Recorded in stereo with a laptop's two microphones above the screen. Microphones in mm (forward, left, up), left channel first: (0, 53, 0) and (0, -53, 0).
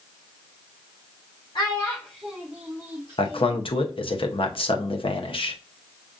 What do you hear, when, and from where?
1.6 s a child speaking: 45° left (ahead or behind), 0.6 m; by 3.6 s 45° right (ahead or behind), 1.1 m
3.2 s a man speaking: 60° left (ahead or behind), 0.7 m